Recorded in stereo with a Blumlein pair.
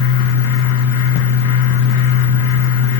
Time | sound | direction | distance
0.0 | a fan | 50° left | 1.1 m